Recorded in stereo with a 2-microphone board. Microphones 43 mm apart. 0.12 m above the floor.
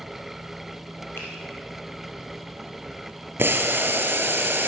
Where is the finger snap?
65° left (ahead or behind), 3.5 m.